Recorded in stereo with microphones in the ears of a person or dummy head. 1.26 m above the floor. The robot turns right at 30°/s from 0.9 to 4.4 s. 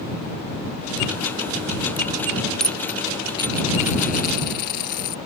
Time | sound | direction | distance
2.6 | a dropped coin | 5° left | ?